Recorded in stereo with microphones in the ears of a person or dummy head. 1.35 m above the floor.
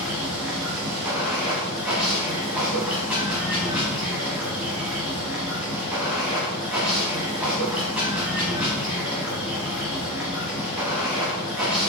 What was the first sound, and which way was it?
Running water, 10° right (ahead or behind).